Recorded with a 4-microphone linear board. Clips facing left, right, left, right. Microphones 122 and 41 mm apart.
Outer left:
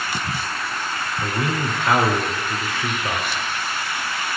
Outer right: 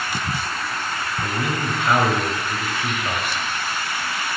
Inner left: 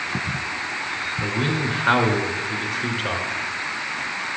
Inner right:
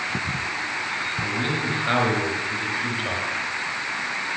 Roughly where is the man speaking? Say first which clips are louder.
Outer left 2 dB, inner left 4 dB; left.